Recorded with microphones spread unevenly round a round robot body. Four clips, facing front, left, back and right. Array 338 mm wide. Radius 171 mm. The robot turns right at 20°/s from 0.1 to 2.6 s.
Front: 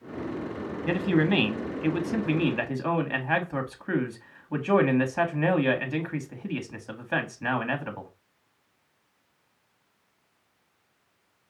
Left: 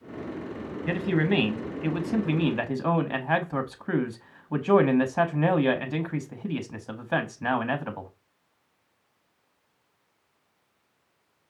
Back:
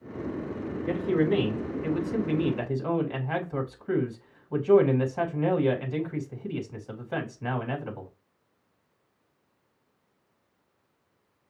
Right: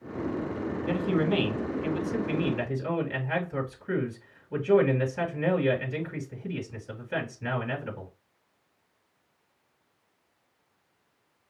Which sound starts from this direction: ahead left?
A man speaking, at 0.9 s.